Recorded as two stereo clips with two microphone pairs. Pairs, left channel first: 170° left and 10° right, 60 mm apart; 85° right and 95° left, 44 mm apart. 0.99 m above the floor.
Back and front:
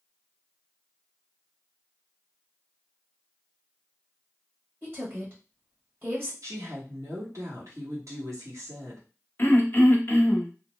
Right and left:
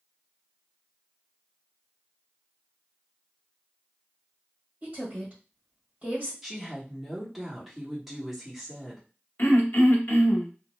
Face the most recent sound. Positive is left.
turn(degrees=-135)